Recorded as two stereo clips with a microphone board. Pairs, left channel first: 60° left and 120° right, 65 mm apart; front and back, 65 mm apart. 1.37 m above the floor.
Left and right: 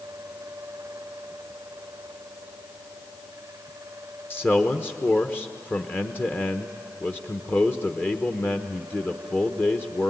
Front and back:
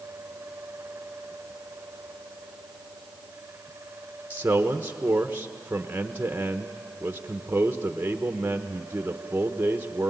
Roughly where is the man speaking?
Behind left.